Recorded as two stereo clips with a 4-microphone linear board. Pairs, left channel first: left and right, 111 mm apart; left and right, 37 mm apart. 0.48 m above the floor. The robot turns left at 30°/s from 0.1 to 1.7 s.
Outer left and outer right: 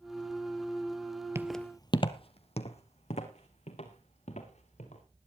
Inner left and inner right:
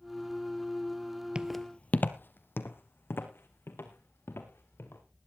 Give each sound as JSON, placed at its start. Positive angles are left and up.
{"t": 1.4, "sound": "footsteps", "side_deg": -25, "distance_m": 0.6}